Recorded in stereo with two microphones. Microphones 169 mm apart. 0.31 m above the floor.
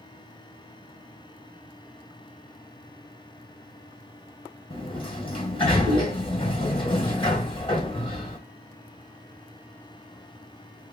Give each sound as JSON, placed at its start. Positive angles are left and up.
{"t": 4.7, "sound": "a sliding door", "side_deg": 30, "distance_m": 1.5}